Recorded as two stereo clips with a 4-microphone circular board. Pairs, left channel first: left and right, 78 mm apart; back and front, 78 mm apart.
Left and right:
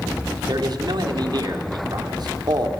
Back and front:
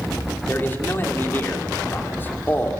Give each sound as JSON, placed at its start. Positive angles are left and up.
{"t": 0.5, "sound": "a man speaking", "azimuth_deg": -115, "distance_m": 3.0}